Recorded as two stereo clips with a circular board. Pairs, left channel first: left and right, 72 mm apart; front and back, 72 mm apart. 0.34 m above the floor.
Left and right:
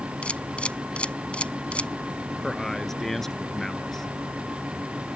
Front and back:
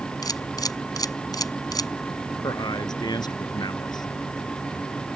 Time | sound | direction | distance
0.2 | a camera shutter | 15° left | ?
2.4 | a man speaking | 5° left | ?